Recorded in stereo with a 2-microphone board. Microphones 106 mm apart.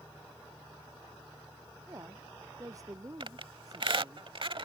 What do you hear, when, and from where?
1.9 s a woman speaking: 30° right (ahead or behind)
3.2 s a squeak: 55° right (ahead or behind)